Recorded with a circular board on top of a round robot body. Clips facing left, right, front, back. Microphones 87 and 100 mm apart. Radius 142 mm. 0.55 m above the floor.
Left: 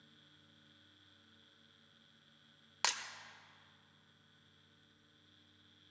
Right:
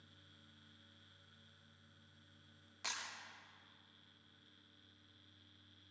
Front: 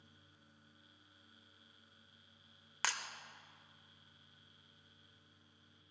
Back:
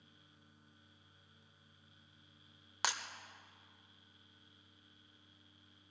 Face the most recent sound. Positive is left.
turn(degrees=105)